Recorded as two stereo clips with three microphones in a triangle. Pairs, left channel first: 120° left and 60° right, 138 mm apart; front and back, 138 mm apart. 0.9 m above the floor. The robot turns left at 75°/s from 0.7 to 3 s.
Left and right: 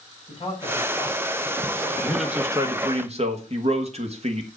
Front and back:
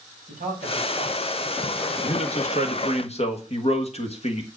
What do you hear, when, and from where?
0.3 s a man speaking: 175° left, 6 m; by 3.0 s straight ahead, 6 m
2.0 s a man speaking: 45° left, 1.5 m; by 4.5 s 30° right, 1.5 m